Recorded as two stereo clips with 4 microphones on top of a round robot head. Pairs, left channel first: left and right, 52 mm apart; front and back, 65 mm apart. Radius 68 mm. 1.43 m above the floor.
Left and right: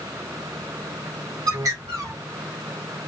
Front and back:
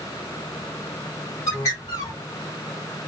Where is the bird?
55° right, 1.5 m.